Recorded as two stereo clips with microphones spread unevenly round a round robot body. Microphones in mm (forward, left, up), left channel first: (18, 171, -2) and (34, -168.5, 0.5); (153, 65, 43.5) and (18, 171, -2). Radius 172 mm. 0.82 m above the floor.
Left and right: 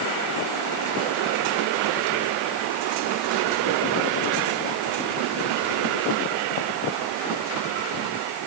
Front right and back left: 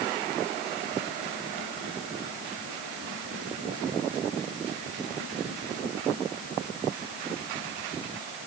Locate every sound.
Only background noise.